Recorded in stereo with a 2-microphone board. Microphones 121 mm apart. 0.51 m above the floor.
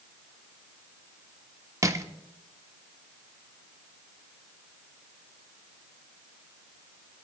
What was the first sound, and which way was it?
Crushing, 25° right (ahead or behind).